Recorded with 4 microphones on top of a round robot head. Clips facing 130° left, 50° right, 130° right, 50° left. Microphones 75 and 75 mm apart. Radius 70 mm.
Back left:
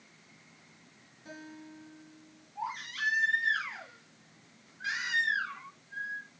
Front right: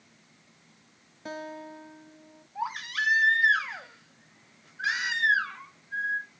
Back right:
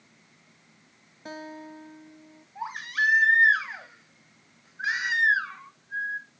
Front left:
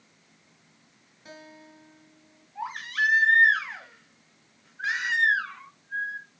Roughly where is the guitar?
Right.